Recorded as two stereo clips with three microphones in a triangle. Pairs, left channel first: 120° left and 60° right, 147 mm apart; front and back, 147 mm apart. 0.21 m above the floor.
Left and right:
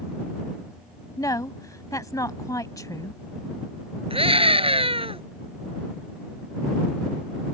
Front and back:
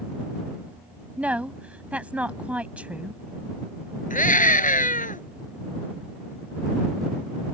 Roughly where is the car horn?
No car horn in this recording.